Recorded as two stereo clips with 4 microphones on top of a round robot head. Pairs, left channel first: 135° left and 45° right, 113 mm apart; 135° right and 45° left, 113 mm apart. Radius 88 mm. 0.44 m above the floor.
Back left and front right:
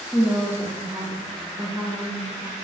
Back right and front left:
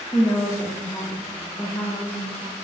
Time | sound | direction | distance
0.1 | a woman speaking | 130° right | 1.2 m